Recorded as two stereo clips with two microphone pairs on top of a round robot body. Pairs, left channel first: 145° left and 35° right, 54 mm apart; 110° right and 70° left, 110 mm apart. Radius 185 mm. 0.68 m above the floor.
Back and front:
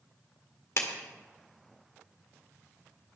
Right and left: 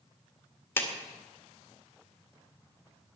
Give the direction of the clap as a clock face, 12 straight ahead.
6 o'clock.